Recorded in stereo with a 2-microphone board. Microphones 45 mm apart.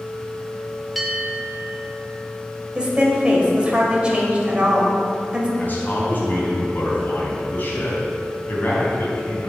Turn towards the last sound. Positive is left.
turn(degrees=40)  # may be behind; listen again after turning